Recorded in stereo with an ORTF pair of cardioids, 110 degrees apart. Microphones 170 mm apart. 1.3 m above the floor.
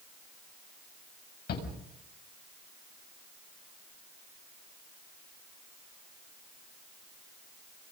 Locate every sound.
1.5 s a shout: 60° left, 7 m